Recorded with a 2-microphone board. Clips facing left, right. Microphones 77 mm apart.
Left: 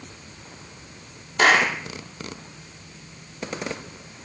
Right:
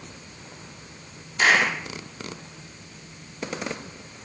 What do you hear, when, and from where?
1.4 s a clap: 60° left (ahead or behind), 3 m